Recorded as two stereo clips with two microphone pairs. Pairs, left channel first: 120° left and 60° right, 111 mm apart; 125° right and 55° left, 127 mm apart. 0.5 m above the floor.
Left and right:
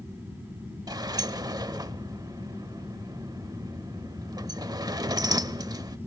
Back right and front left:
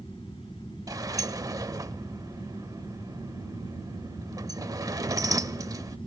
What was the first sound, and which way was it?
A sliding door, 5° right.